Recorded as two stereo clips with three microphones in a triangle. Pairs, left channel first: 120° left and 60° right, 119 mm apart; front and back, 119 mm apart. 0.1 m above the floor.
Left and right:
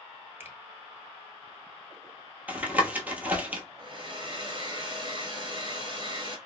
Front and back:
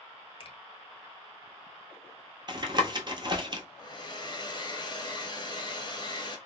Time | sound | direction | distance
0.4 | a finger snap | 5° left | 1.3 m
2.5 | tapping | 135° right | 0.8 m
3.8 | a hair dryer | 30° right | 0.9 m